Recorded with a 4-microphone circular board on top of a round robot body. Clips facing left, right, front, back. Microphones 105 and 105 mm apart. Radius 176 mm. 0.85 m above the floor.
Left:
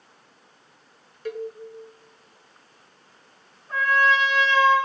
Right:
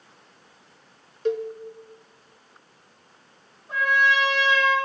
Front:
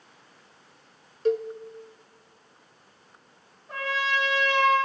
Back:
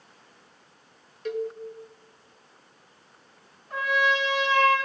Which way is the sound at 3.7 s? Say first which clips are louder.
Left 1 dB, back 4 dB; 20° right.